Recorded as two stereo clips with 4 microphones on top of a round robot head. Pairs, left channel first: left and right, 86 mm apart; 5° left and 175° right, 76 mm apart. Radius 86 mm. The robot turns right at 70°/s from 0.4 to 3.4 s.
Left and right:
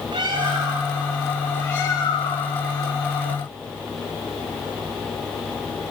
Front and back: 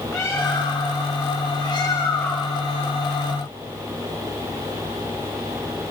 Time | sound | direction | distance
0.1 | a bird | 55° right | 3.5 m